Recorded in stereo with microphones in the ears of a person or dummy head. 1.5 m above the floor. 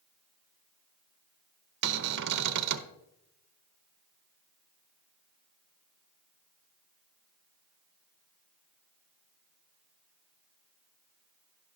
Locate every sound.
1.8 s a cupboard door: 65° right (ahead or behind), 0.7 m